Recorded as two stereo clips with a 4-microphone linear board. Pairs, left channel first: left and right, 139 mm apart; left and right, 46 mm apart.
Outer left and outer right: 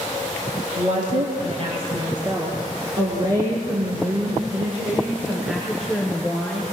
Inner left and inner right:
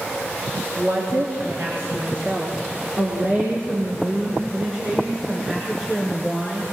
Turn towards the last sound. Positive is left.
turn(degrees=5)  # may be behind; listen again after turning